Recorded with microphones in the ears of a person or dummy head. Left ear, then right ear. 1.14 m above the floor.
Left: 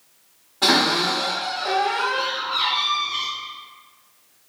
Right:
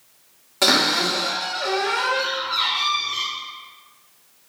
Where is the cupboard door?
50° right (ahead or behind), 0.8 m.